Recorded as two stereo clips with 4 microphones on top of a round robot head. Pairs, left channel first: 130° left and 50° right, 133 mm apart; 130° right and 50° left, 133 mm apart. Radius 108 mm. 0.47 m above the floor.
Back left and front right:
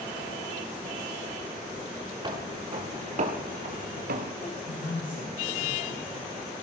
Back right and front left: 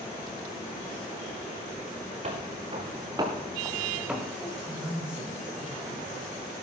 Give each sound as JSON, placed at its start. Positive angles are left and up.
{"t": 2.2, "sound": "footsteps", "azimuth_deg": 5, "distance_m": 4.0}
{"t": 4.4, "sound": "a woman speaking", "azimuth_deg": 135, "distance_m": 3.5}